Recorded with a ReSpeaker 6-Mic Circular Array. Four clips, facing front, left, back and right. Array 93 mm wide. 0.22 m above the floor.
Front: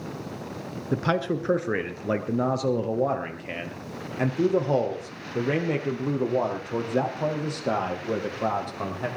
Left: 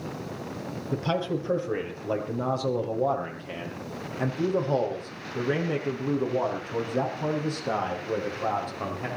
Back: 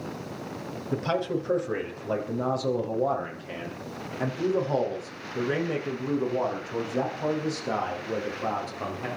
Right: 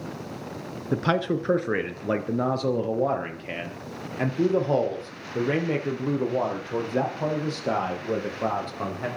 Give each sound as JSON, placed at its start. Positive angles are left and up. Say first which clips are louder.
{"t": 0.9, "sound": "a man speaking", "louder": "right 4 dB, front 2 dB", "azimuth_deg": -55, "distance_m": 3.5}